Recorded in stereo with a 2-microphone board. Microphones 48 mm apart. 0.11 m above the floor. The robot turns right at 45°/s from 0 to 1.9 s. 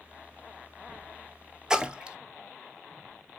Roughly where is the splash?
Centre.